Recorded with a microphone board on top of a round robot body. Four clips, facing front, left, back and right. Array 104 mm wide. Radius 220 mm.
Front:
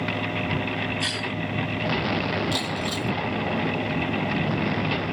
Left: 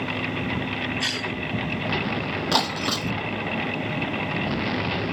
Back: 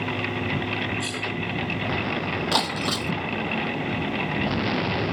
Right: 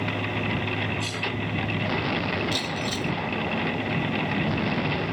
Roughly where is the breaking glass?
Behind left.